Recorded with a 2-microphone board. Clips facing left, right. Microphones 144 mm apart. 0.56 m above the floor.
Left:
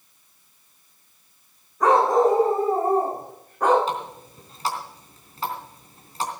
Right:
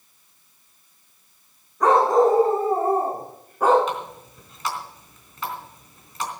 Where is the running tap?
35° left (ahead or behind), 3.5 m.